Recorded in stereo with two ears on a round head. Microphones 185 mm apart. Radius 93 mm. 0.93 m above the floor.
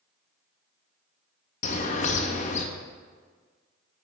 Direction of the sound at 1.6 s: 35° left (ahead or behind).